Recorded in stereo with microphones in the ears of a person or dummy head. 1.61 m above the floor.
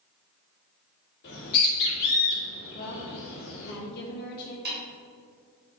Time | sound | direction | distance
1.2 | a bird | 45° left (ahead or behind) | 2.5 m
2.7 | a woman speaking | 45° left (ahead or behind) | 1.5 m
4.7 | a snare drum | 40° right (ahead or behind) | 2.5 m